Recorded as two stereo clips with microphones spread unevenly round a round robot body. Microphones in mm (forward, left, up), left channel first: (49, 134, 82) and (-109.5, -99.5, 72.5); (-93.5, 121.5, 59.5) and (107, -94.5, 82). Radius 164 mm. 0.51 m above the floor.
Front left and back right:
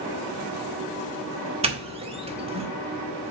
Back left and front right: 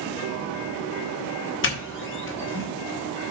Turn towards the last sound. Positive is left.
turn(degrees=170)